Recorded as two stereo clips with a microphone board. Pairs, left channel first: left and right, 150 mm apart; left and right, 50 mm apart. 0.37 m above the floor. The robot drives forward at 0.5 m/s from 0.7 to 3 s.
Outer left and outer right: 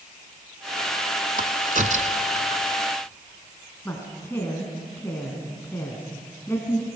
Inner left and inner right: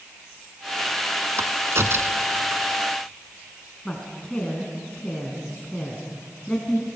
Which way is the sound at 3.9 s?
15° left (ahead or behind).